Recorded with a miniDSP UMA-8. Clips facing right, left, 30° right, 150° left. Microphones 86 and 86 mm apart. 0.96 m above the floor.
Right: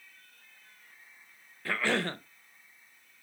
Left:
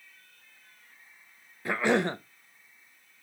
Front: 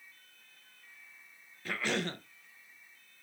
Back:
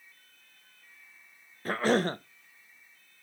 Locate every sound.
1.6 s a cough: 150° left, 0.6 m